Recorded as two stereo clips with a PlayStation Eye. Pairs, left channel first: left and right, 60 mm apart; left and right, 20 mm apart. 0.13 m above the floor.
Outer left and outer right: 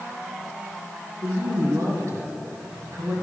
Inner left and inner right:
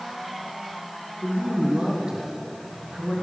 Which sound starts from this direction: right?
A woman speaking, at 1.2 s.